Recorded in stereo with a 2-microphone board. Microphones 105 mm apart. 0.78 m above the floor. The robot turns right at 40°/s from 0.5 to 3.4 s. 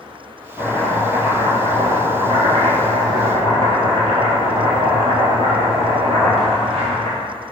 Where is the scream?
No scream in this recording.